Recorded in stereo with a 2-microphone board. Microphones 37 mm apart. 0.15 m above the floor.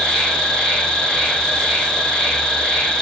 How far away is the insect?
About 1.0 m.